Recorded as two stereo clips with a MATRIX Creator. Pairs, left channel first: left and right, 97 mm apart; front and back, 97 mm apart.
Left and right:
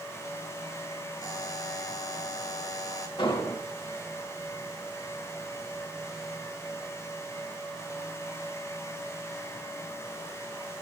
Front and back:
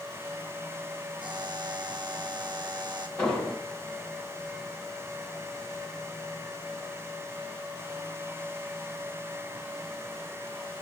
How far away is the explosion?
About 2 m.